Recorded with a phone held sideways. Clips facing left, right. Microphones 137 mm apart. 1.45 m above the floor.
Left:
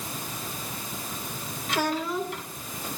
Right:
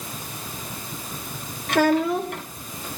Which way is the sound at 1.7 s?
60° right (ahead or behind).